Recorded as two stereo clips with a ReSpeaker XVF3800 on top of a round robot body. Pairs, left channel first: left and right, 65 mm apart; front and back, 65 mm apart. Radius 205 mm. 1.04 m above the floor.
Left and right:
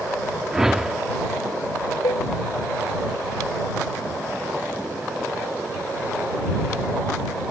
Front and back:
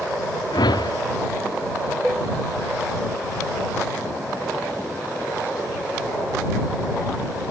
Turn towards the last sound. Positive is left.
turn(degrees=95)